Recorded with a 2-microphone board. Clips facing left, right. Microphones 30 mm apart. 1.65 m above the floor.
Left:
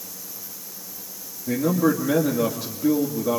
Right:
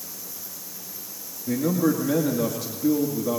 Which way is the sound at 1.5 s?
10° left (ahead or behind).